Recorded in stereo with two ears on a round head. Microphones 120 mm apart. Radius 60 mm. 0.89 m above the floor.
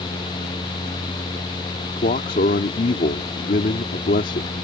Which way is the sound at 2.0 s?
65° left (ahead or behind).